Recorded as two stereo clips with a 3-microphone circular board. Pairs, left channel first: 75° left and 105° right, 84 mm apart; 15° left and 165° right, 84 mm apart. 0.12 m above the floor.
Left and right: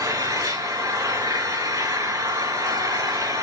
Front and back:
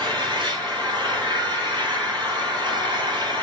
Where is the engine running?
145° right, 5 m.